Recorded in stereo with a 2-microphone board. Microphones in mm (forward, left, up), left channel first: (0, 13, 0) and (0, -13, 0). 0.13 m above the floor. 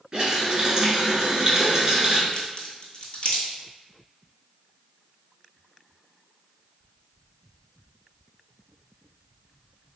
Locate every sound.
0.1 s a running tap: 25° right (ahead or behind), 1.2 m
2.3 s a crack: 45° left (ahead or behind), 1.0 m